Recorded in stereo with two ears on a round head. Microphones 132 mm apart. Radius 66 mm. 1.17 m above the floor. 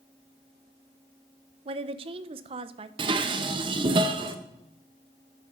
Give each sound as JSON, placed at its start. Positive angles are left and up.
{"t": 1.6, "sound": "a woman speaking", "side_deg": -40, "distance_m": 0.5}
{"t": 3.0, "sound": "dishes clattering", "side_deg": -35, "distance_m": 0.7}